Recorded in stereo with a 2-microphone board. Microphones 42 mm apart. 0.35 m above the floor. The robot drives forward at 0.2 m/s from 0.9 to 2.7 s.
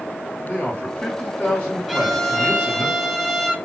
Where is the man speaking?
35° left (ahead or behind), 1.5 m; by 2.9 s 30° left (ahead or behind), 1.6 m.